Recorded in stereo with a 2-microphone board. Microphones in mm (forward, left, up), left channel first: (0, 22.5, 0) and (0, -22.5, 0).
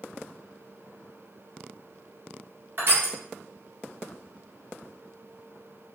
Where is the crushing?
50° right (ahead or behind), 1.5 m.